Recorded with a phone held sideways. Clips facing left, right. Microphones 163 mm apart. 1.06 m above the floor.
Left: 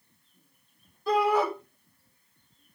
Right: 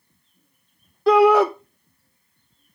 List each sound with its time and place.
1.1 s a shout: 75° right (ahead or behind), 0.5 m